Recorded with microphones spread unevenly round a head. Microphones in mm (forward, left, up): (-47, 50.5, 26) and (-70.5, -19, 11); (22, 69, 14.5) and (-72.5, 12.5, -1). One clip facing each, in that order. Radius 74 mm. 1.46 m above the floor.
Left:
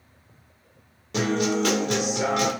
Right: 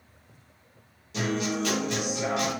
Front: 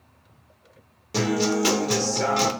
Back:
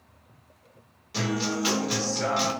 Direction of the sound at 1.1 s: 50° left.